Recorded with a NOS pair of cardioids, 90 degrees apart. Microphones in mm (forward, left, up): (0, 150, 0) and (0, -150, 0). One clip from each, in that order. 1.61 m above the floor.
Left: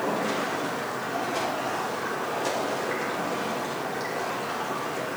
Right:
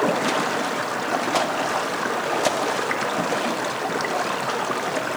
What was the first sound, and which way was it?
Running water, 70° right.